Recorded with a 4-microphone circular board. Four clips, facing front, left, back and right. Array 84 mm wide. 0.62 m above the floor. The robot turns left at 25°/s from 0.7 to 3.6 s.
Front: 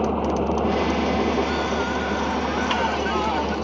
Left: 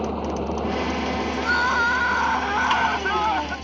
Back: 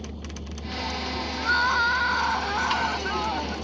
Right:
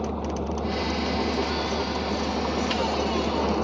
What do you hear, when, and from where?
0.0 s an engine running: 10° left; by 3.7 s 60° right
1.4 s crying: 130° left; by 3.6 s 75° left